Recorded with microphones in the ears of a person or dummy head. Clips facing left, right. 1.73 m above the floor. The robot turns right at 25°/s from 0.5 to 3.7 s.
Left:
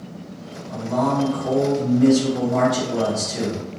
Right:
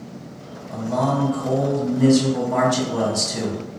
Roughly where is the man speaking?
Behind.